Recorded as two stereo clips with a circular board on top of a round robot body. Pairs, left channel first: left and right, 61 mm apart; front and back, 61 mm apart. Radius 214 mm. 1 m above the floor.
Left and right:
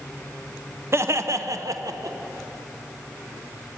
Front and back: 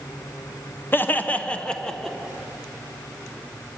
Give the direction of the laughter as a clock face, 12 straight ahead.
2 o'clock.